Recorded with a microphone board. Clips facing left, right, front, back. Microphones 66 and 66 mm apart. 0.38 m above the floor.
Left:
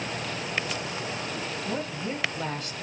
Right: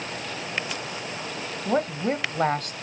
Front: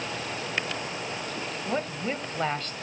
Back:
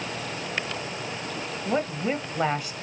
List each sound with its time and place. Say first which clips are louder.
1.6 s a woman speaking: right 11 dB, back 4 dB; 100° right, 1.8 m